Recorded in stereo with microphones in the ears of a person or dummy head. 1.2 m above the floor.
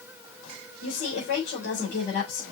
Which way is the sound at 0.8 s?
60° left (ahead or behind).